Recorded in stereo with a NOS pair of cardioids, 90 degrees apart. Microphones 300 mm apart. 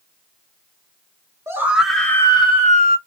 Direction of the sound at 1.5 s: 10° right.